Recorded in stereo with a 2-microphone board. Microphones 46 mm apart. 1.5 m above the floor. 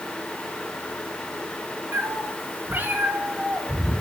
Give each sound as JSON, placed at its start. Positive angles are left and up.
{"t": 1.9, "sound": "a cat meowing", "side_deg": -60, "distance_m": 2.5}